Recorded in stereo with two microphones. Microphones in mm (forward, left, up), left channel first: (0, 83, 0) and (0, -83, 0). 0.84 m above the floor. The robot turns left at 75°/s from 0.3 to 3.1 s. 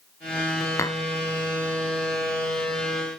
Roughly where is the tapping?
Centre.